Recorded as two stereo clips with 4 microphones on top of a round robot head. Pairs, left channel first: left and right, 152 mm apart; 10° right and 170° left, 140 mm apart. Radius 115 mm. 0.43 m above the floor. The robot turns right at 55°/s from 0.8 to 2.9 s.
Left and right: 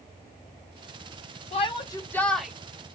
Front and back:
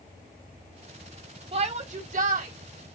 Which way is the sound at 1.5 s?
130° left.